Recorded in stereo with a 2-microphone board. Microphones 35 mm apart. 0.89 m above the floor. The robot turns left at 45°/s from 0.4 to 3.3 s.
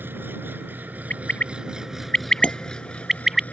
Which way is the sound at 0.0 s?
95° right.